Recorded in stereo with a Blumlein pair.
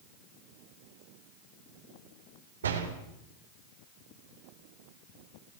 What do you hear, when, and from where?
2.6 s a door slam: 70° right, 3.5 m